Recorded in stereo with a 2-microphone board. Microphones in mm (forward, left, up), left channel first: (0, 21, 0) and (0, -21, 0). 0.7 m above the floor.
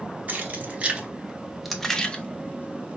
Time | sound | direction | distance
0.3 | keys jangling | 35° right (ahead or behind) | 1.1 m